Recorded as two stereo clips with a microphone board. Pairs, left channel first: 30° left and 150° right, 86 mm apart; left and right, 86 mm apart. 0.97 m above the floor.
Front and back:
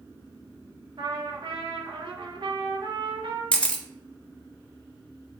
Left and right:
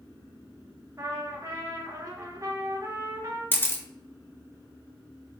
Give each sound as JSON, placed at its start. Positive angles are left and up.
{"t": 1.0, "sound": "a trumpet", "azimuth_deg": -140, "distance_m": 0.7}
{"t": 3.5, "sound": "a camera shutter", "azimuth_deg": 80, "distance_m": 0.7}